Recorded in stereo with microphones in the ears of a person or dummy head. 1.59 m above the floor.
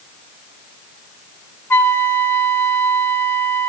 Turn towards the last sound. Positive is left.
turn(degrees=15)  # may be behind; listen again after turning